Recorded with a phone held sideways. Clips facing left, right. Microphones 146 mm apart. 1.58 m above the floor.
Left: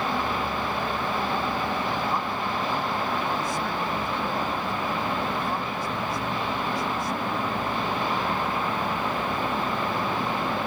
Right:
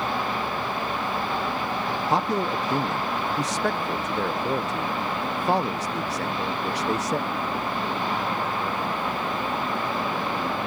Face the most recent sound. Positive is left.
turn(degrees=-85)